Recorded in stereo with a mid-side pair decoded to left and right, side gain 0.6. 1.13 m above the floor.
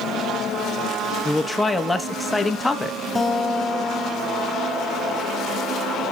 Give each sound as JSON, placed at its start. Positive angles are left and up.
{"t": 1.2, "sound": "a man speaking", "azimuth_deg": 10, "distance_m": 1.3}
{"t": 3.1, "sound": "a guitar", "azimuth_deg": 10, "distance_m": 3.0}